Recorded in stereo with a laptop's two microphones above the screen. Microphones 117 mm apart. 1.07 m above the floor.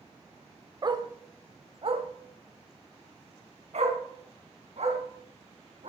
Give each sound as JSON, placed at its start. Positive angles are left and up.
{"t": 0.8, "sound": "a dog barking", "side_deg": -35, "distance_m": 1.4}